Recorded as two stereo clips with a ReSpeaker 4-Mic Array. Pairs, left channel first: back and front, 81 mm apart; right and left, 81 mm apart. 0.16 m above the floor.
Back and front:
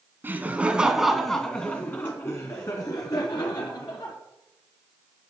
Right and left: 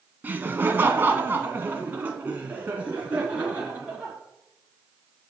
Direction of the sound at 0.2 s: 40° left.